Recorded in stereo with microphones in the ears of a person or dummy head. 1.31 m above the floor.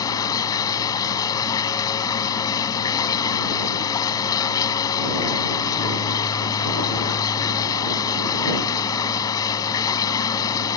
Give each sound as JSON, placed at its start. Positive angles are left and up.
{"t": 0.0, "sound": "running water", "side_deg": 25}